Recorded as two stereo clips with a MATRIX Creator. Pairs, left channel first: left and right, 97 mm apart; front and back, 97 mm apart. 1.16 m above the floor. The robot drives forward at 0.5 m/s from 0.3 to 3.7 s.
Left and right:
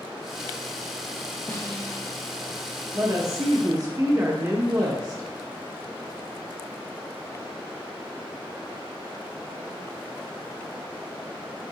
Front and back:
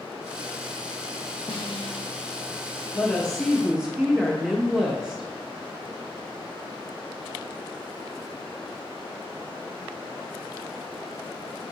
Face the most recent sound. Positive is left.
turn(degrees=-105)